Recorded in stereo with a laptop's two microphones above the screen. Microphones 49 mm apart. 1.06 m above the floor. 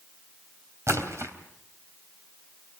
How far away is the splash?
About 3 m.